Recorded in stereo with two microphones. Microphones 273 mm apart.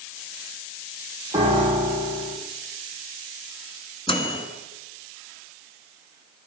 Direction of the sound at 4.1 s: 20° left (ahead or behind).